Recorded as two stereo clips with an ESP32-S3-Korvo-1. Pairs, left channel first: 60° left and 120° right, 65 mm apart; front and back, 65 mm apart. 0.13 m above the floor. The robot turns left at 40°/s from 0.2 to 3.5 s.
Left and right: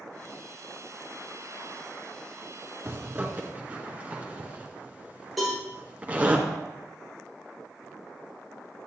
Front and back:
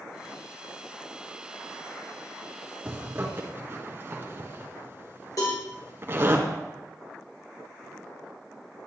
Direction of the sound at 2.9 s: 145° right.